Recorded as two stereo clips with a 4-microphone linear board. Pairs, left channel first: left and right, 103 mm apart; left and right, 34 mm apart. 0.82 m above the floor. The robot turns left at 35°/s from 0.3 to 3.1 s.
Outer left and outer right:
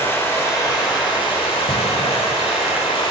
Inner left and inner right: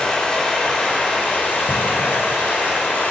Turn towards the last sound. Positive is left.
turn(degrees=55)